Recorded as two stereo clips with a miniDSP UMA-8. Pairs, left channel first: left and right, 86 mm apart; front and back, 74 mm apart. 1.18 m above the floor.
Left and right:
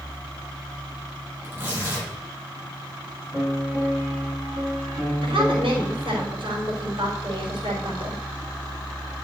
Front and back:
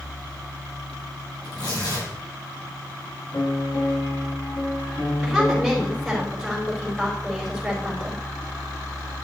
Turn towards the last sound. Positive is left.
turn(degrees=-90)